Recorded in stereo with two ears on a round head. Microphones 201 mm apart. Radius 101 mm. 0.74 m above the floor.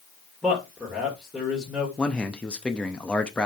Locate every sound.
0.4 s a man speaking: centre (ahead or behind), 2 m
2.0 s a man speaking: 5° left (ahead or behind), 0.7 m